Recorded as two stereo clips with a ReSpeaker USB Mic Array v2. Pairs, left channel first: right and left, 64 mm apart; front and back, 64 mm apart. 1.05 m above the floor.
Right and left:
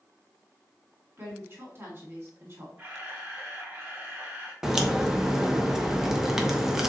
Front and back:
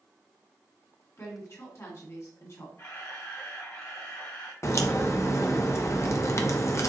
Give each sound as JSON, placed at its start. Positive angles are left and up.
{"t": 1.2, "sound": "a woman speaking", "azimuth_deg": 40, "distance_m": 1.7}
{"t": 2.8, "sound": "a camera shutter", "azimuth_deg": 30, "distance_m": 1.6}
{"t": 4.6, "sound": "a crack", "azimuth_deg": 5, "distance_m": 0.7}